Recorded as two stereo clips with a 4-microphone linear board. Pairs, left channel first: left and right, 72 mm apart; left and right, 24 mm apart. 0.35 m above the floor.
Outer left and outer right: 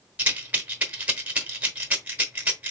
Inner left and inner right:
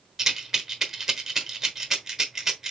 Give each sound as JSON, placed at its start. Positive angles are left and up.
{"t": 0.2, "sound": "a rattle", "side_deg": -20, "distance_m": 1.0}